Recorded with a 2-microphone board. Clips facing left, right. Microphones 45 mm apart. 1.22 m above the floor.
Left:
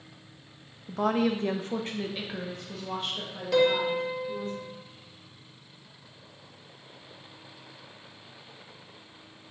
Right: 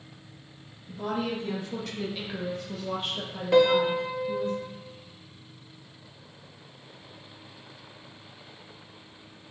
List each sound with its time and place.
0.9 s a woman speaking: 75° left (ahead or behind), 0.6 m; by 4.5 s 30° right (ahead or behind), 1.6 m
3.5 s a piano: 20° right (ahead or behind), 0.6 m